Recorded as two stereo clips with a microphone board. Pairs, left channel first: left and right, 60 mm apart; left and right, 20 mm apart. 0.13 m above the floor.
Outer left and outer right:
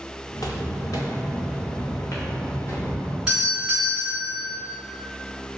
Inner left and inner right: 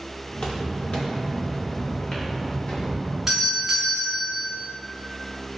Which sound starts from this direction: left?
Footsteps, at 0.3 s.